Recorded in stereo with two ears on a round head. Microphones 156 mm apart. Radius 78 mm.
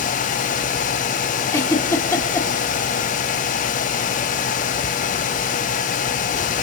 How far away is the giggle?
About 2.5 m.